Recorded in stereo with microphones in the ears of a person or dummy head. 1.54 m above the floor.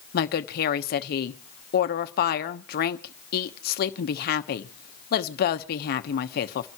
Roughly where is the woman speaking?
Left.